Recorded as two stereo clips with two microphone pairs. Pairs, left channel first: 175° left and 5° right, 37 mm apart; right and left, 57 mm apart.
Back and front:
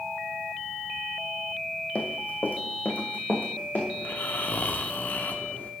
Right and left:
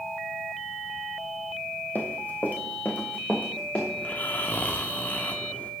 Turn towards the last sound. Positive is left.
turn(degrees=-150)